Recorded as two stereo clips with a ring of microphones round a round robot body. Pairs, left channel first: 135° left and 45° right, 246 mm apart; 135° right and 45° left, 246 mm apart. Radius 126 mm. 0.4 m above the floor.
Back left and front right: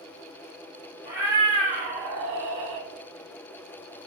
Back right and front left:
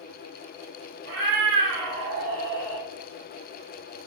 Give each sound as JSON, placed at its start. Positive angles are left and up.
{"t": 1.1, "sound": "a cat meowing", "azimuth_deg": 40, "distance_m": 1.4}